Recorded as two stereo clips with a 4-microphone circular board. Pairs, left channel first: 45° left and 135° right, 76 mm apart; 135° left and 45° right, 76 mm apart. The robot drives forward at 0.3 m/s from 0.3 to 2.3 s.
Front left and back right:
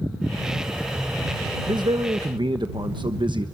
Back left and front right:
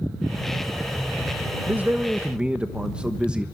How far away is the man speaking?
About 1.0 m.